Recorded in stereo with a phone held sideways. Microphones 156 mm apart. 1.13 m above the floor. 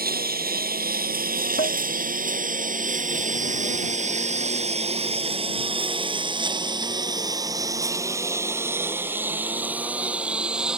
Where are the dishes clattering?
85° left.